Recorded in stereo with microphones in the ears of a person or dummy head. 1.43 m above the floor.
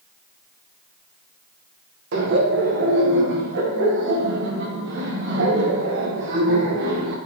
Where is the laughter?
65° right (ahead or behind), 1.5 m.